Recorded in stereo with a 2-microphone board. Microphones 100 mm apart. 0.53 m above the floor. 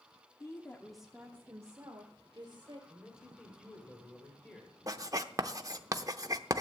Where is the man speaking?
25° left (ahead or behind), 2 m.